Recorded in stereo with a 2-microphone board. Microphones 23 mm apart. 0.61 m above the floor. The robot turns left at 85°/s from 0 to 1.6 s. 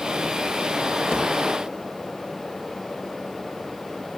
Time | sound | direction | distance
1.1 | a thud | 45° left (ahead or behind) | 9.5 m